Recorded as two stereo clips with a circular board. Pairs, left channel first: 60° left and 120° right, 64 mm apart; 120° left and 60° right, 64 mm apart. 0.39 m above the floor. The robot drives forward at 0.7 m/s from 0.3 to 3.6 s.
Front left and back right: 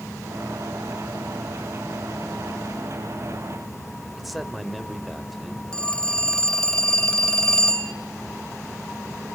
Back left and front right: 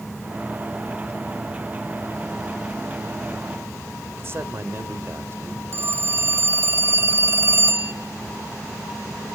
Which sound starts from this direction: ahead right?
A man speaking, at 4.2 s.